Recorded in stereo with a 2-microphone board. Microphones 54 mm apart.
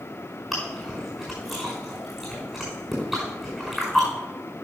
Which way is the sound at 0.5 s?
5° right (ahead or behind).